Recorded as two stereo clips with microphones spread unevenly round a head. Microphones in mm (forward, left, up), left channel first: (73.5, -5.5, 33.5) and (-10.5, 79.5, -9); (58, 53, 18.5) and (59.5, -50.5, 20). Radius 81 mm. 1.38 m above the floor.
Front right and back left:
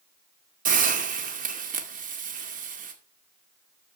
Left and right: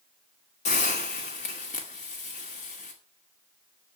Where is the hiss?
120° left, 2 m.